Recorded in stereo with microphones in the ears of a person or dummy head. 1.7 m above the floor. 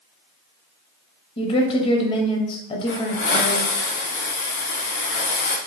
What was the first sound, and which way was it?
A woman speaking, 25° left (ahead or behind).